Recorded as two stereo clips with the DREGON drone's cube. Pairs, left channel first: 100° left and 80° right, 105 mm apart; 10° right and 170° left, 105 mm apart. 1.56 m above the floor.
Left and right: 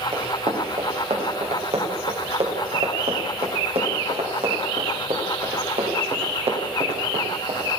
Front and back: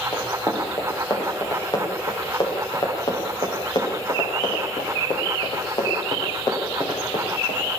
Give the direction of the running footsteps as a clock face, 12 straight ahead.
2 o'clock.